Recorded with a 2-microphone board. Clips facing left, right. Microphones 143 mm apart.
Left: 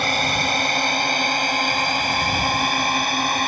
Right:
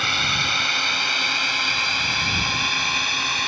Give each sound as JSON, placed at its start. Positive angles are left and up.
{"t": 0.0, "sound": "a drone", "side_deg": 45}